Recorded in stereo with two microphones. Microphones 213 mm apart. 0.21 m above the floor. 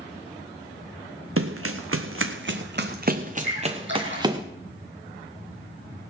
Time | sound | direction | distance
1.4 | running footsteps | 80° right | 1.2 m
3.4 | a splash | 60° right (ahead or behind) | 7 m